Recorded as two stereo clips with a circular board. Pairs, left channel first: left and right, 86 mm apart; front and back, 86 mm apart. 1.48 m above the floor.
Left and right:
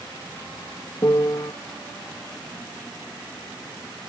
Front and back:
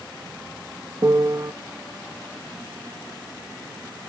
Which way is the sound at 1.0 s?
130° left.